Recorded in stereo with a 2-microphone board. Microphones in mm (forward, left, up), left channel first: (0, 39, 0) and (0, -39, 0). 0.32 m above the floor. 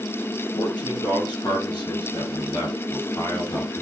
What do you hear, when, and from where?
0.6 s a man speaking: 75° left (ahead or behind), 6.5 m; by 3.8 s 55° left (ahead or behind), 6 m